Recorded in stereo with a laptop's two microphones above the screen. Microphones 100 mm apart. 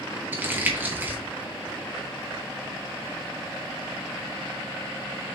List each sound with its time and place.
0.3 s crumpling: 15° right (ahead or behind), 0.7 m